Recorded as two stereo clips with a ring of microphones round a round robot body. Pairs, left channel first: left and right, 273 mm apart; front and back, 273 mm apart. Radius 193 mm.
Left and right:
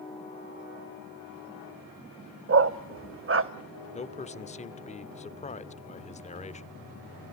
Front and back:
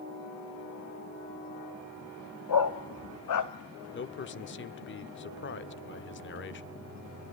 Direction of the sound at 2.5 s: 45° right.